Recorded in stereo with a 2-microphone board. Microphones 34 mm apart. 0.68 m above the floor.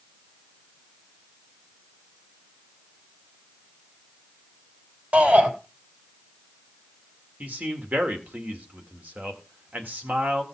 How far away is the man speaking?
About 2.0 m.